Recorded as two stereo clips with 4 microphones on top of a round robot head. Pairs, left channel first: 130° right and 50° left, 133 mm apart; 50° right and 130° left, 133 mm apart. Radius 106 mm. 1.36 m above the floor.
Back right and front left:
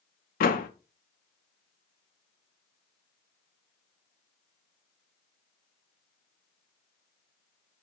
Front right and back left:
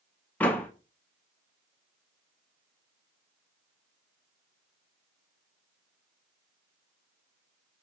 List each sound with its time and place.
0.4 s a door slam: 130° right, 0.9 m